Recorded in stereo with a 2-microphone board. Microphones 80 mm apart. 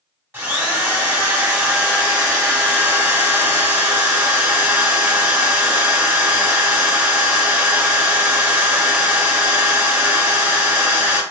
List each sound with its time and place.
0.3 s a drill: 25° right (ahead or behind), 0.7 m